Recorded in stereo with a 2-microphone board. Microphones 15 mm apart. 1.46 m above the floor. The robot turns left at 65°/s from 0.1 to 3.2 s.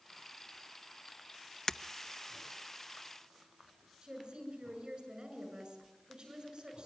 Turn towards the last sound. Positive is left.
turn(degrees=-60)  # may be behind; listen again after turning